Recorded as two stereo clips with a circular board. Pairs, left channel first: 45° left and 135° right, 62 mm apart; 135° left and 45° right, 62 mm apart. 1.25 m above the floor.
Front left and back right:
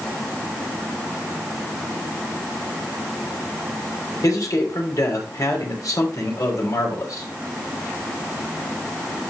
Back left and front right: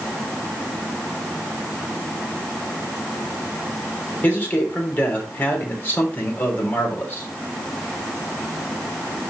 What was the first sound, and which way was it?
A man speaking, 75° left.